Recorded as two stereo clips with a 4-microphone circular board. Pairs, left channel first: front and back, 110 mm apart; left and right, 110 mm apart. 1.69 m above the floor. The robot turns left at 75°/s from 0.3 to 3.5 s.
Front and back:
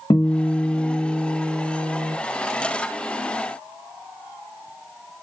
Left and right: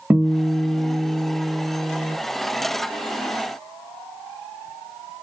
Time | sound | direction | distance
0.1 | a guitar | 20° right | 1.2 m